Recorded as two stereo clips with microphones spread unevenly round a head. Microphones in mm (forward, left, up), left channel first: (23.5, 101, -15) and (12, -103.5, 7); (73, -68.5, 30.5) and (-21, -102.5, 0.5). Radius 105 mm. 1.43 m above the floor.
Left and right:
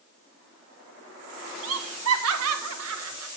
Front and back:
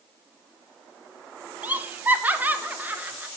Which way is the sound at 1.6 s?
85° right.